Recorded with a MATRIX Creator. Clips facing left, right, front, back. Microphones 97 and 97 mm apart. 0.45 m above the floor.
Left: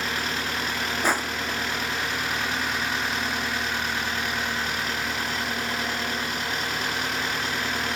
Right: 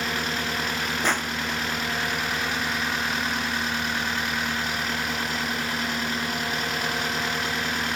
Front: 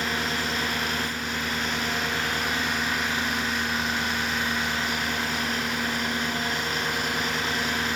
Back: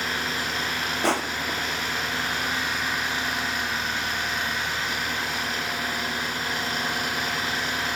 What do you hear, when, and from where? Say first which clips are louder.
1.0 s crushing: left 2 dB, back 5 dB; 170° left